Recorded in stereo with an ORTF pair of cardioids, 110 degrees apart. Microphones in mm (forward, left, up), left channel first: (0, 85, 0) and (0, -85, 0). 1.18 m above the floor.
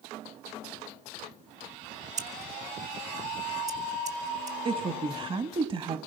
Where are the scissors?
45° right, 1.7 m.